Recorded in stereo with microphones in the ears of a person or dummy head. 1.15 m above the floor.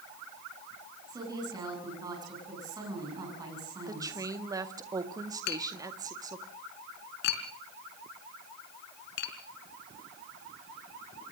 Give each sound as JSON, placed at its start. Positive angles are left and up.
{"t": 1.1, "sound": "a woman speaking", "side_deg": -20, "distance_m": 8.0}
{"t": 3.9, "sound": "a woman speaking", "side_deg": -20, "distance_m": 1.8}
{"t": 5.5, "sound": "tapping", "side_deg": 70, "distance_m": 3.5}